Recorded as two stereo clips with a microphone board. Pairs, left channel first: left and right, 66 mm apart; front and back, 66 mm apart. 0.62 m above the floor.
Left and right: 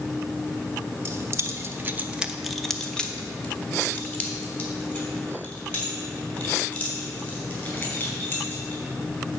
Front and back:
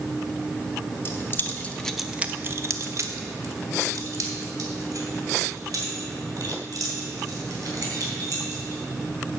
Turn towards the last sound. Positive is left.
turn(degrees=150)